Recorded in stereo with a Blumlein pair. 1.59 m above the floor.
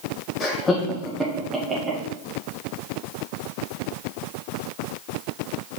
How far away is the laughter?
About 0.7 m.